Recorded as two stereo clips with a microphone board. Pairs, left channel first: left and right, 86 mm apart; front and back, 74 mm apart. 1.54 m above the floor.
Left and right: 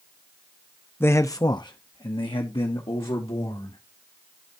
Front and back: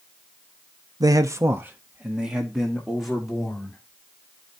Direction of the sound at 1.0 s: 155° left.